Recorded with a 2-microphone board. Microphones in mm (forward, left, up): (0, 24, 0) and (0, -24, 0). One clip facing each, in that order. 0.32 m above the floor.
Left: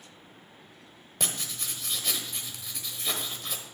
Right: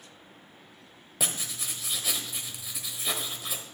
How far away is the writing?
About 1.0 m.